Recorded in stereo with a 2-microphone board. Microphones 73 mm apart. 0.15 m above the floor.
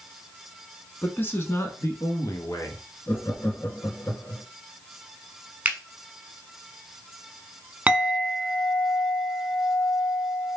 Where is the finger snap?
20° right (ahead or behind), 0.9 m.